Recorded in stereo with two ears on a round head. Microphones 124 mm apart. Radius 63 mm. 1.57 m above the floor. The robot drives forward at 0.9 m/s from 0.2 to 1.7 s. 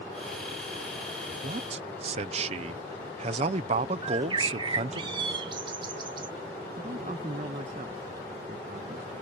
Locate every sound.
1.4 s a man speaking: 55° right (ahead or behind); by 5.0 s 45° right (ahead or behind)
4.0 s a bird: 35° right (ahead or behind)
6.8 s a man speaking: 45° right (ahead or behind)